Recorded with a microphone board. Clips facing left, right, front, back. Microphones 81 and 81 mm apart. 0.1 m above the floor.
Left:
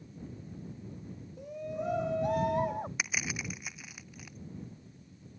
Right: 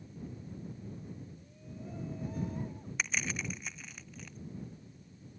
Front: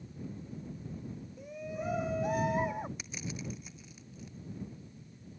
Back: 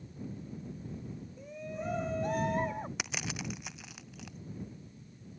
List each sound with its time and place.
1.4 s a shout: 85° left
3.0 s crushing: 170° left